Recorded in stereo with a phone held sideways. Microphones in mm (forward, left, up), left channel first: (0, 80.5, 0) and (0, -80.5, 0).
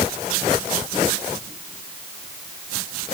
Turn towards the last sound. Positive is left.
No sound to turn to.